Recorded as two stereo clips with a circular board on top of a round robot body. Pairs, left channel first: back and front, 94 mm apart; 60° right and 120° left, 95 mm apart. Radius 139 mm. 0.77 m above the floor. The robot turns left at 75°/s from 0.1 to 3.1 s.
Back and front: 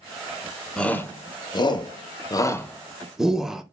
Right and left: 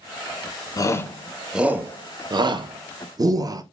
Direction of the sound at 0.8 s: 100° right.